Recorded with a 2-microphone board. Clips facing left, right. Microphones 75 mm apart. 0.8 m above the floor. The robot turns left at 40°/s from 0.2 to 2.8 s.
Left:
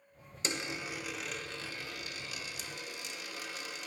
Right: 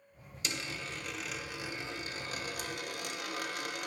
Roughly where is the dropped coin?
Ahead left.